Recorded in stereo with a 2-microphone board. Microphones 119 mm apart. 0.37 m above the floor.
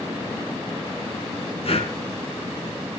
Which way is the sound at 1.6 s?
60° left (ahead or behind).